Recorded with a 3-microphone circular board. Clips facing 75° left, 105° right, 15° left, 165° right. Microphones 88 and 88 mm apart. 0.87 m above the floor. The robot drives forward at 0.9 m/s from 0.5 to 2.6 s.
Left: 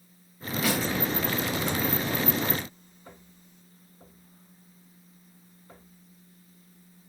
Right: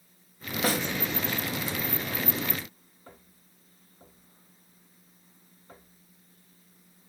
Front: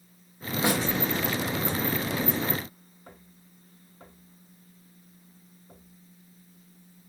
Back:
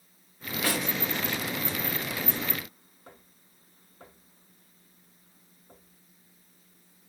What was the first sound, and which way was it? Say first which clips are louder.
A snare drum: even, front 4 dB; 50° right.